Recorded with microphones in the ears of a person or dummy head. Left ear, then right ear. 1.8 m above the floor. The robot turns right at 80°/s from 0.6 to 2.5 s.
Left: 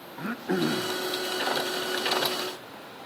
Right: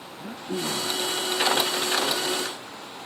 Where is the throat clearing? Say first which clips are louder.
Left 3 dB; 110° left, 0.7 m; by 1.0 s 145° left, 0.7 m.